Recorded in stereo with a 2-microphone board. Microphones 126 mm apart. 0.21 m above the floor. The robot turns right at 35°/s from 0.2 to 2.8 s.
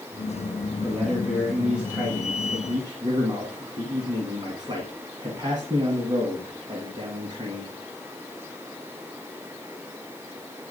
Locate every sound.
0.8 s a man speaking: 160° left, 1.9 m; by 7.8 s 130° right, 1.9 m